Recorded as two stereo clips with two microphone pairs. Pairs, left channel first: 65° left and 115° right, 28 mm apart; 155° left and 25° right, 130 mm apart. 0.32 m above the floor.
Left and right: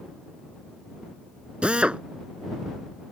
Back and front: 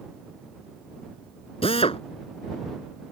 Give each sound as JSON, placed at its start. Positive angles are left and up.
{"t": 1.6, "sound": "a drill", "azimuth_deg": -165}